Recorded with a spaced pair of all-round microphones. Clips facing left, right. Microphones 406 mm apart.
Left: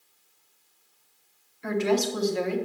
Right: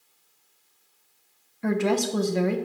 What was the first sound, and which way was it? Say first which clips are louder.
A woman speaking: right 1 dB; 65° right (ahead or behind).